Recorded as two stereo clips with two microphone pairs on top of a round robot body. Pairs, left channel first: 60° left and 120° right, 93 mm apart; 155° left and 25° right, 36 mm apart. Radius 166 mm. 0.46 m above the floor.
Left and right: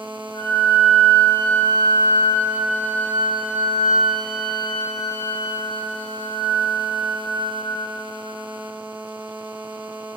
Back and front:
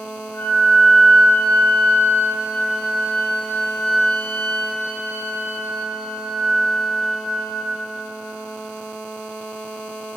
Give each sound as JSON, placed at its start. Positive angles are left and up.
{"t": 0.3, "sound": "a flute", "azimuth_deg": 115, "distance_m": 4.5}